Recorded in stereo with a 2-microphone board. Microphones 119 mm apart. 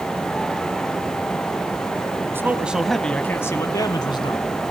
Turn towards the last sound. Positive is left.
turn(degrees=45)  # may be behind; listen again after turning